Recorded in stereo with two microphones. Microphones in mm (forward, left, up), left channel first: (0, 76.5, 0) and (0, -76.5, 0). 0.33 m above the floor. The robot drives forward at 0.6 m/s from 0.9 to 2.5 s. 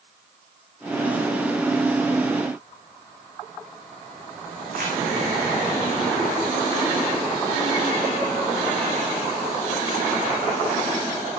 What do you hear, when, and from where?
4.7 s crumpling: 75° right (ahead or behind), 4 m